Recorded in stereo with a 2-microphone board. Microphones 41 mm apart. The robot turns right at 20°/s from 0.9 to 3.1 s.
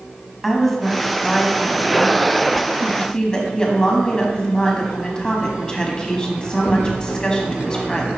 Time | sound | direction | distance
0.4 | a woman speaking | 5° left (ahead or behind) | 1.4 m